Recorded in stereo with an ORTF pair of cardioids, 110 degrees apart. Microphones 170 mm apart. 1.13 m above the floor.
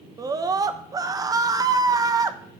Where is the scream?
20° right, 0.8 m.